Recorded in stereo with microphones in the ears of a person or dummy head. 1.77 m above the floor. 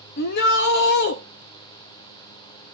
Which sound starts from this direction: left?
A shout, at 0.2 s.